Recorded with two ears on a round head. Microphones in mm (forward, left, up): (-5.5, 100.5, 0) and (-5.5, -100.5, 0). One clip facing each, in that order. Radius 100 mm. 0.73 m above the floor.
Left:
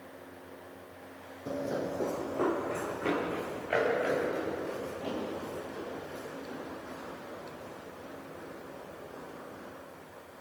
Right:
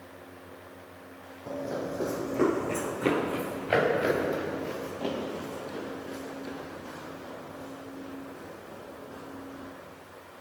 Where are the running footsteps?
20° left (ahead or behind), 1.3 m; by 9.7 s 75° right (ahead or behind), 11.5 m.